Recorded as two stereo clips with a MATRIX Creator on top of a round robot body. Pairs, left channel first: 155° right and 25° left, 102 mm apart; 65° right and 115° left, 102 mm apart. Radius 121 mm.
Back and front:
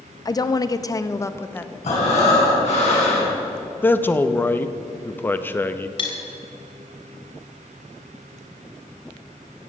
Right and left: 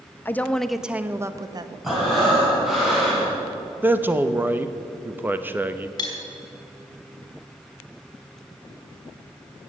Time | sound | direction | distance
0.2 | a woman speaking | 125° right | 0.8 m
1.8 | breathing | 160° right | 4 m
3.8 | a man speaking | 160° left | 0.9 m
6.0 | cutlery clinking | 120° right | 3.5 m